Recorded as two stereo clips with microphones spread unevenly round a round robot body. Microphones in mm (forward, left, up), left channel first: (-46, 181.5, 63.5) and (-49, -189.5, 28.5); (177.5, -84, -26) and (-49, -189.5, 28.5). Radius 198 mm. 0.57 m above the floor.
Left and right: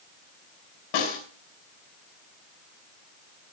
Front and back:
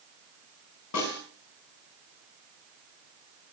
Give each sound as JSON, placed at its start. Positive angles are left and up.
{"t": 0.9, "sound": "a snare drum", "azimuth_deg": 60, "distance_m": 4.5}